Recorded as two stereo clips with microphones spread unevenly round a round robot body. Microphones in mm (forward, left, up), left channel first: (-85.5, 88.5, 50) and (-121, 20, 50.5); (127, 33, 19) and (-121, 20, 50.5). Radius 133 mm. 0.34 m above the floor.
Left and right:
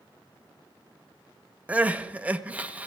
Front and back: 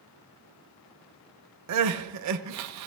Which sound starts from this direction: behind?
Crying, at 1.7 s.